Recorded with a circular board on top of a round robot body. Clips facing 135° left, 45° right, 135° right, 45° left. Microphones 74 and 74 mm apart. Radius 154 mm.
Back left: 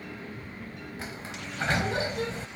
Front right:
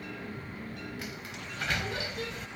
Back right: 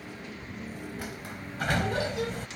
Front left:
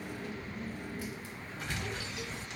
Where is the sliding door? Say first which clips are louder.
Back left 2 dB, back right 3 dB; 165° right.